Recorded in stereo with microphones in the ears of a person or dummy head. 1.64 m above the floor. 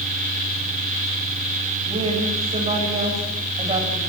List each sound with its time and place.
1.9 s a woman speaking: 30° right (ahead or behind), 8 m